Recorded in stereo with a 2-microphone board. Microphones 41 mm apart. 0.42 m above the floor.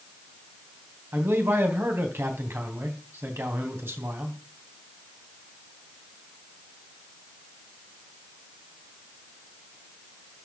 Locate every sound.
1.1 s a man speaking: 70° right (ahead or behind), 3 m